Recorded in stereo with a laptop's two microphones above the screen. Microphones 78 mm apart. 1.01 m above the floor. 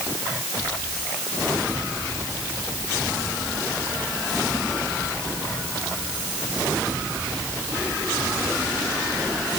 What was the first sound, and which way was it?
Only background noise.